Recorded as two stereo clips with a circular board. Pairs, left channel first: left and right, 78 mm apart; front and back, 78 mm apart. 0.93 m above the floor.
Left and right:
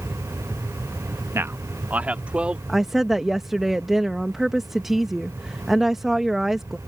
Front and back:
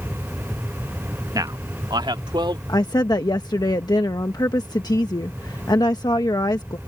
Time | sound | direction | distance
1.4 | a man speaking | 145° right | ?
2.7 | a woman speaking | 5° right | ?